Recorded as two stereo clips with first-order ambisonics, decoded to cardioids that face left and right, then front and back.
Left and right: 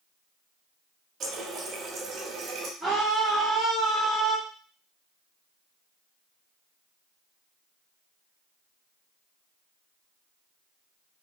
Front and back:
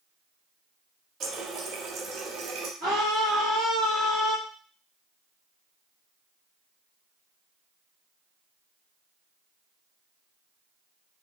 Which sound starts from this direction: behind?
A scream, at 2.8 s.